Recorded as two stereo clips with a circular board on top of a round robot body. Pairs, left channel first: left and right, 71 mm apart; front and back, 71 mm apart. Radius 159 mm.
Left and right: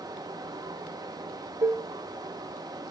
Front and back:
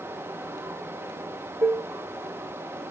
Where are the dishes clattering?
125° right, 0.6 m.